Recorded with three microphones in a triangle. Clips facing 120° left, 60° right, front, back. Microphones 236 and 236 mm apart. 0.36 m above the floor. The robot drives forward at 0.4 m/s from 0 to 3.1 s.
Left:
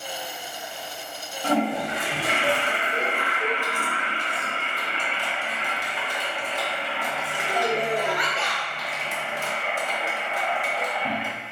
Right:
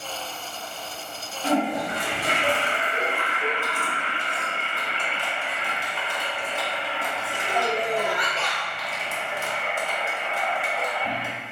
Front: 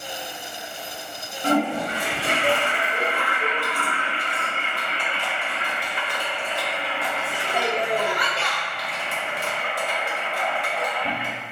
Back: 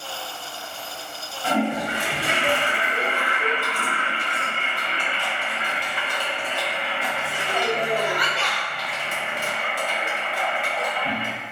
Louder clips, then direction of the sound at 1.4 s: Even, front 1 dB; 30° left.